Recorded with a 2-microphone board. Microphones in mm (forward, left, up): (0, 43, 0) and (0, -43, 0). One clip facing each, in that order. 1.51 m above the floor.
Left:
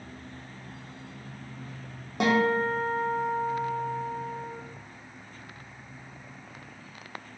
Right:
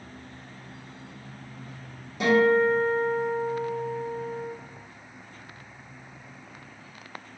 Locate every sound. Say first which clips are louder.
2.2 s a guitar: right 4 dB; 60° left (ahead or behind), 0.8 m